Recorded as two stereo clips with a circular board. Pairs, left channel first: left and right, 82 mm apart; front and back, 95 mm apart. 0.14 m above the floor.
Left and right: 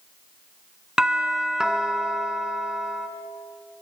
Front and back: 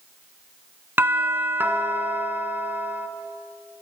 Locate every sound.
1.0 s a doorbell: 160° right, 1.6 m